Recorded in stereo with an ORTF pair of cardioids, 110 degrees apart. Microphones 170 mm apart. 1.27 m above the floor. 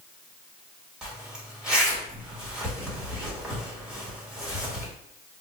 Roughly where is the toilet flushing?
No toilet flushing in this recording.